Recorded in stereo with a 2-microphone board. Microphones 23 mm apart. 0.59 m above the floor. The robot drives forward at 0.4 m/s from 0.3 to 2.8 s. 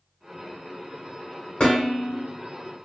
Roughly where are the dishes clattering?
Left.